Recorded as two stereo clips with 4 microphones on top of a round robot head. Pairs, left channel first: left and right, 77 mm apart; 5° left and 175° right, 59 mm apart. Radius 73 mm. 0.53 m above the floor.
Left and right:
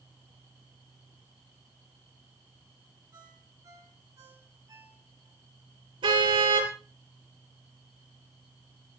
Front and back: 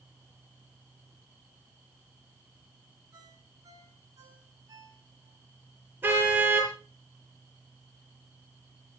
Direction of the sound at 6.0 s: 115° right.